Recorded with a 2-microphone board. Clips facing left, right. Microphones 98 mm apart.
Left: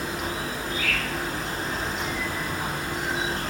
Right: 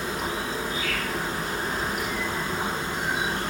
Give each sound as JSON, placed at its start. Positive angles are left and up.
{"t": 0.0, "sound": "an insect", "side_deg": -30, "distance_m": 1.0}